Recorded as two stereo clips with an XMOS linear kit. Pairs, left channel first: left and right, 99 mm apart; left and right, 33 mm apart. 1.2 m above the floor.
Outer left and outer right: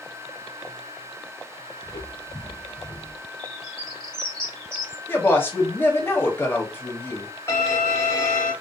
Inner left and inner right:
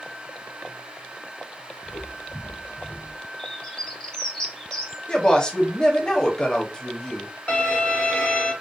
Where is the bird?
10° left (ahead or behind), 1.0 m.